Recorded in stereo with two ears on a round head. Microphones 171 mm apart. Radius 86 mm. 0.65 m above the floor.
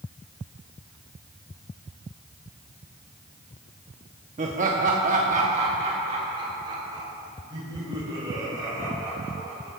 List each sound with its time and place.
4.4 s laughter: 40° right (ahead or behind), 0.9 m; by 9.7 s 20° right (ahead or behind), 4 m